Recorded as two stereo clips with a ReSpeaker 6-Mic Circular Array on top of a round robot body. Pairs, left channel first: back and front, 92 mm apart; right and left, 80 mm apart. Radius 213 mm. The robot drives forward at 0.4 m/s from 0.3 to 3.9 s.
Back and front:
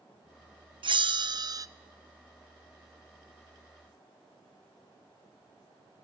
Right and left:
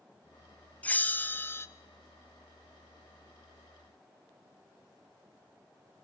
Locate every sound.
0.8 s a bell: 20° right, 0.8 m; by 1.7 s 40° right, 0.6 m